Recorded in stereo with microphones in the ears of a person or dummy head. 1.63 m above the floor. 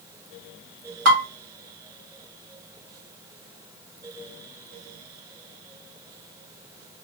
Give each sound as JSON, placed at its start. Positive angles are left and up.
{"t": 1.1, "sound": "dishes clattering", "side_deg": -65, "distance_m": 2.5}